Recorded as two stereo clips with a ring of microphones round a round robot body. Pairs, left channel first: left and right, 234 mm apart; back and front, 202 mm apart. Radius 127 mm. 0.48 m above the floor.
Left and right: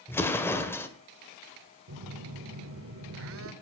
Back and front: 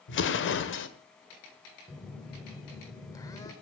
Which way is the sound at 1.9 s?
105° right.